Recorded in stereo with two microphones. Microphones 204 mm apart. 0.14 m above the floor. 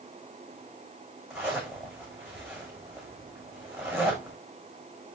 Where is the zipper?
5° right (ahead or behind), 4.5 m.